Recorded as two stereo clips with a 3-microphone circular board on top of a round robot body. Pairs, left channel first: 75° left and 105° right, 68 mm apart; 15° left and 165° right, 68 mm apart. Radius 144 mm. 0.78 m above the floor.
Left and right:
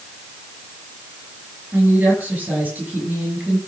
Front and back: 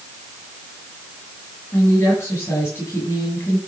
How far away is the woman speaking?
About 8 m.